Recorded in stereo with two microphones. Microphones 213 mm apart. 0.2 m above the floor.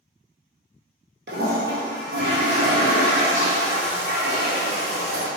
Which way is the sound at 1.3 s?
55° right (ahead or behind).